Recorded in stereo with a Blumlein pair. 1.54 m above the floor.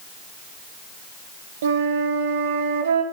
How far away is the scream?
No scream in this recording.